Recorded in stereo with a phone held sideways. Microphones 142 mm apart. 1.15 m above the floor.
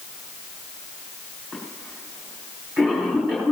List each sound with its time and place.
1.5 s a cough: 5° right (ahead or behind), 5 m